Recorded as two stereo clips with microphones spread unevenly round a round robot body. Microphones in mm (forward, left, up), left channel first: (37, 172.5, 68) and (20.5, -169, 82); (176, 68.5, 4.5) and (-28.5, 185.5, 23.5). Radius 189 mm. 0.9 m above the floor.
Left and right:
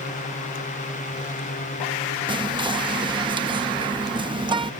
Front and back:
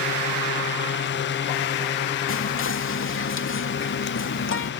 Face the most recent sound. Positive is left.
turn(degrees=-15)